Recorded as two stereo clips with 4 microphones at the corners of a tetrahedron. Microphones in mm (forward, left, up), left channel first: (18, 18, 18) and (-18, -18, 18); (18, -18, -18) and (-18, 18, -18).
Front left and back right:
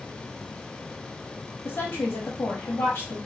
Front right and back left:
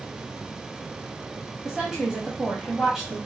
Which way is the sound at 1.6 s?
50° left.